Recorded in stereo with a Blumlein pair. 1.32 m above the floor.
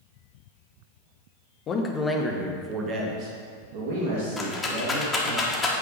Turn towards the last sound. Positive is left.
turn(degrees=10)